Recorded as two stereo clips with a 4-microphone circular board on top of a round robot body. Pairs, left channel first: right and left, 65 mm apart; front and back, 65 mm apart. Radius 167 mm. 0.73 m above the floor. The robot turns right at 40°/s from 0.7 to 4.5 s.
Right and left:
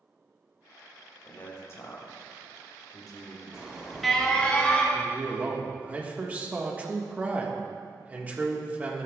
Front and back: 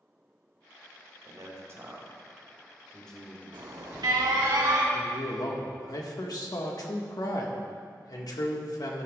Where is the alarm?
160° left, 1.8 m; by 4.8 s 160° right, 1.8 m.